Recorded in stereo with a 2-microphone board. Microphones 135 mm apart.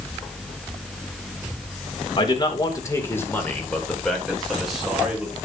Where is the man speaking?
35° left (ahead or behind), 2.5 m; by 5.3 s 10° right (ahead or behind), 4 m.